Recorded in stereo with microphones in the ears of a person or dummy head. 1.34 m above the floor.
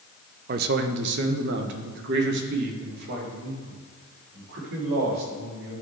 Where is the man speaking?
45° right (ahead or behind), 0.5 m; by 5.7 s 60° right (ahead or behind), 4.5 m.